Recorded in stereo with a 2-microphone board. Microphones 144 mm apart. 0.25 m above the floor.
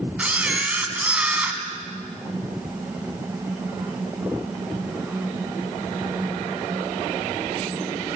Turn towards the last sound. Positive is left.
turn(degrees=-10)  # may be behind; listen again after turning